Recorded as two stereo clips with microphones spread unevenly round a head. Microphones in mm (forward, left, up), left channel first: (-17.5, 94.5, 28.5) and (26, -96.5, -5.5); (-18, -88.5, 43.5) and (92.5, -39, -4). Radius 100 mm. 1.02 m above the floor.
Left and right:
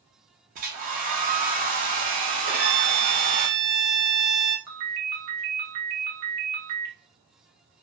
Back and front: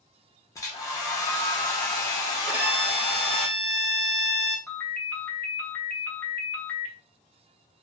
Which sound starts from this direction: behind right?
A hair dryer, at 0.6 s.